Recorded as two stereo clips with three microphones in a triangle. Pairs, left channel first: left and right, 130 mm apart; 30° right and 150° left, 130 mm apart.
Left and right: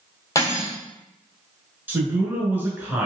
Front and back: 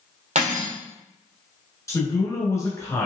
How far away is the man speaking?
About 1.1 m.